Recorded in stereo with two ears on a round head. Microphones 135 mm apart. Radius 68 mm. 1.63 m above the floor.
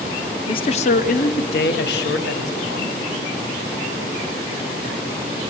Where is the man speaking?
30° left (ahead or behind), 1.0 m; by 3.0 s 90° left, 2 m.